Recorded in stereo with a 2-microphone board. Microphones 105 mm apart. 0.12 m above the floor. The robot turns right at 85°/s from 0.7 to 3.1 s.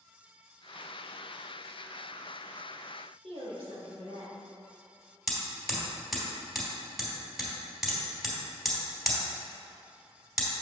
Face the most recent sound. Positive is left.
turn(degrees=0)  # may be behind; listen again after turning